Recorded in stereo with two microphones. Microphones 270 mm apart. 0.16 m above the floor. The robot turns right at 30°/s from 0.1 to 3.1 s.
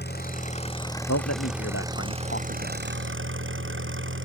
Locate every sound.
0.0 s an engine running: 140° left; by 4.2 s 130° right
1.1 s a man speaking: 80° left; by 2.8 s 30° left (ahead or behind)